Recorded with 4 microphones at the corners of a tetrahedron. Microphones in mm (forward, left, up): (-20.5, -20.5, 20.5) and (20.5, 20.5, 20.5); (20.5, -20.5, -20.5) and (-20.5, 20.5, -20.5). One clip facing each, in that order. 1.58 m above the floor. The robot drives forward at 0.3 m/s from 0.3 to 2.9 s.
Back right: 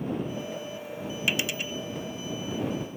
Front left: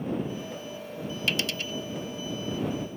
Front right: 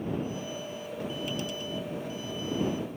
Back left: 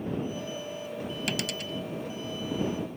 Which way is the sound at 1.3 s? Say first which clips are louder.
Back right 1 dB, back left 1 dB; 150° left.